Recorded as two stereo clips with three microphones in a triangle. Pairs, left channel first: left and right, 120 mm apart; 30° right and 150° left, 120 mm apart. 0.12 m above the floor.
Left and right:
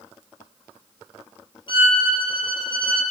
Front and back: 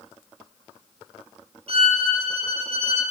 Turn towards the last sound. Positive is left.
turn(degrees=130)